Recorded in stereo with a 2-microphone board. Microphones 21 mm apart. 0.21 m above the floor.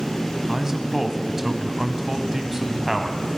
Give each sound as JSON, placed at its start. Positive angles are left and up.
{"t": 0.5, "sound": "a man speaking", "side_deg": -20, "distance_m": 1.1}